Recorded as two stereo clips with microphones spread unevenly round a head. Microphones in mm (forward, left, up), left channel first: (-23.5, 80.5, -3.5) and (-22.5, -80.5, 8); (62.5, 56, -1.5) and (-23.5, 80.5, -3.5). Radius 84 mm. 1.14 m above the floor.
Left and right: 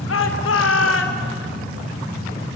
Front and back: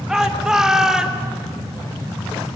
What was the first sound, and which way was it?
A shout, 80° left.